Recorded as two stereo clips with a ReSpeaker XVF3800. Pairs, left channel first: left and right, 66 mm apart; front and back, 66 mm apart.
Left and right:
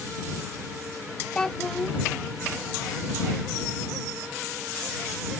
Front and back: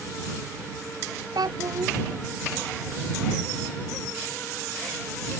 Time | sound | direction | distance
1.4 | a child speaking | 170° left | ?